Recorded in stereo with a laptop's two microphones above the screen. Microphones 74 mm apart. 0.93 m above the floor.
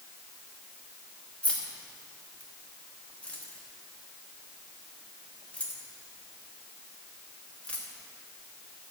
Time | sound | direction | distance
1.4 | keys jangling | 15° left (ahead or behind) | 1.1 m